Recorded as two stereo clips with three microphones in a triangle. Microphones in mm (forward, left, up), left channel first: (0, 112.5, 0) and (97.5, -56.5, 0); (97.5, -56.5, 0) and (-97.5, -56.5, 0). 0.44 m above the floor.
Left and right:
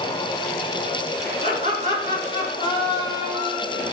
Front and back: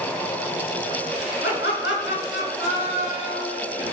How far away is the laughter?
About 4.5 m.